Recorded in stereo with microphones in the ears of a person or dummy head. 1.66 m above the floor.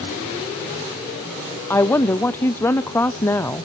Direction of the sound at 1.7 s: 15° left (ahead or behind).